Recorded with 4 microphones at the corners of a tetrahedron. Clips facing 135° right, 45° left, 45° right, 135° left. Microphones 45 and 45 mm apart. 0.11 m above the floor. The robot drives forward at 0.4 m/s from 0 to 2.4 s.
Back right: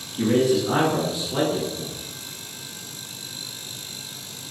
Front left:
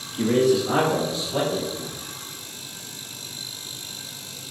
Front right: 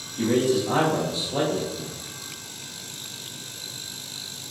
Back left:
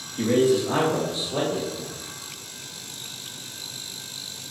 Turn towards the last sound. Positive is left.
turn(degrees=170)